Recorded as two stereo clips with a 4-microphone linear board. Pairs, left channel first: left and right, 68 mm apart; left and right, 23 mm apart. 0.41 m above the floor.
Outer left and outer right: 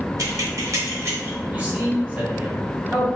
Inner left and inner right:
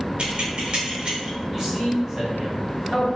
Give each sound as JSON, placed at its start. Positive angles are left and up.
{"t": 0.2, "sound": "keys jangling", "side_deg": -65, "distance_m": 1.0}
{"t": 1.5, "sound": "a man speaking", "side_deg": -25, "distance_m": 2.0}